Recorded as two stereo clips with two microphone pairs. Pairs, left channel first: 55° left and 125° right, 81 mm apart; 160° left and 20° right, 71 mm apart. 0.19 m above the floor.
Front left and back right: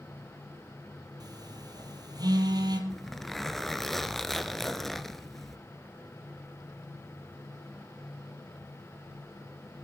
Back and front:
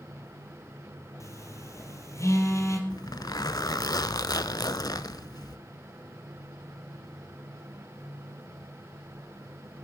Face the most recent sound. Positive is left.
turn(degrees=140)